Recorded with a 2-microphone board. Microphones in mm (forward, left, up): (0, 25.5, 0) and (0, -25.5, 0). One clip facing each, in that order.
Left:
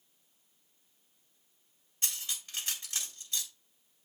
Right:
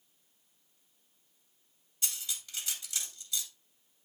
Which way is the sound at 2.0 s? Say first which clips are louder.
Left 1 dB; 40° left (ahead or behind).